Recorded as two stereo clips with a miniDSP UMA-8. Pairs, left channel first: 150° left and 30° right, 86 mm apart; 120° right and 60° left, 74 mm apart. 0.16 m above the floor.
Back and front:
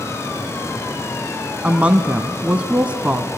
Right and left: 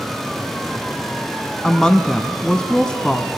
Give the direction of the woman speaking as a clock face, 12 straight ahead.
2 o'clock.